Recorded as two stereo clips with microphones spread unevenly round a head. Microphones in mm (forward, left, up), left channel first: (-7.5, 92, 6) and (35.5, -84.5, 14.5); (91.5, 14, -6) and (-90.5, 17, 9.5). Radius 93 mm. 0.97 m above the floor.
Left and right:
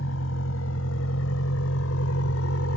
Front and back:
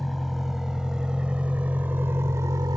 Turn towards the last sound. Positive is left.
turn(degrees=110)